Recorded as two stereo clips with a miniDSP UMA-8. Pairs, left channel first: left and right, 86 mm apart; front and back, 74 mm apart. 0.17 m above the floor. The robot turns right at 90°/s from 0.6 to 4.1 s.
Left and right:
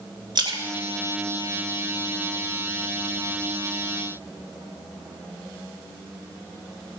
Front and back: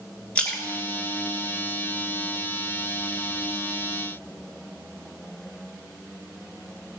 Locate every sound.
0.3 s a splash: 70° right, 1.7 m; by 2.1 s 70° left, 1.7 m